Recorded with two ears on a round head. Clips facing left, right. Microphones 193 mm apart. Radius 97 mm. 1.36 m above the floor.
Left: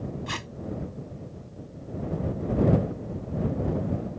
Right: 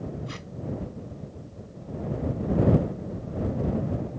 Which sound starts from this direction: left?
Tape being pulled, at 0.3 s.